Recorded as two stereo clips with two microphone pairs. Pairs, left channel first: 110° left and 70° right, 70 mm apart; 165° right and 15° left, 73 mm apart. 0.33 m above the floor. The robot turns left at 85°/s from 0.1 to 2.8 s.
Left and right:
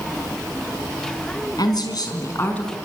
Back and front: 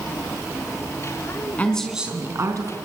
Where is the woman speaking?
130° left, 4 m; by 2.7 s 30° left, 4 m.